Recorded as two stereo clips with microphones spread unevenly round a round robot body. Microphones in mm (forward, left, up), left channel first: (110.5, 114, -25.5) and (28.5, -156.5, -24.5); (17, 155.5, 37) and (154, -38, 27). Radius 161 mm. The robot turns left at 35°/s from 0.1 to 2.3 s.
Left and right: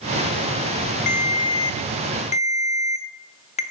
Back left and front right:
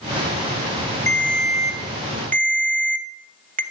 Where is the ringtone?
45° left, 0.8 m; by 3.6 s 5° left, 0.8 m.